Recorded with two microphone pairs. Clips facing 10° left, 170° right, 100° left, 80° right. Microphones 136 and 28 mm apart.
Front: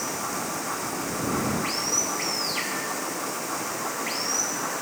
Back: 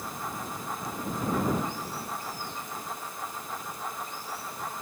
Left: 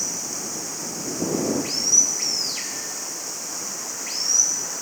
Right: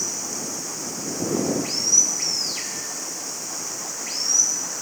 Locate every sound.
0.0 s running water: 5° left